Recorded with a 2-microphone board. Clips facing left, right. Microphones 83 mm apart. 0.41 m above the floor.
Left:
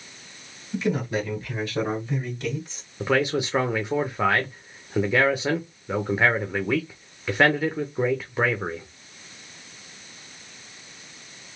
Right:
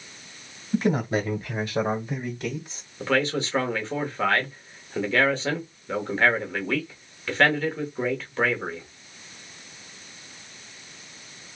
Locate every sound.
0.7 s a man speaking: 35° right (ahead or behind), 1.2 m; by 2.8 s 5° right (ahead or behind), 2.0 m
3.0 s a man speaking: 10° left (ahead or behind), 0.9 m